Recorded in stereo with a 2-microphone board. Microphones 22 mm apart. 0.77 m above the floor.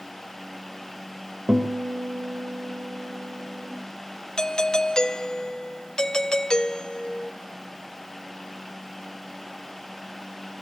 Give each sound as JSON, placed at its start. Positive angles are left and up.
{"t": 1.5, "sound": "a guitar", "side_deg": -70, "distance_m": 3.0}
{"t": 4.4, "sound": "a doorbell", "side_deg": 35, "distance_m": 1.0}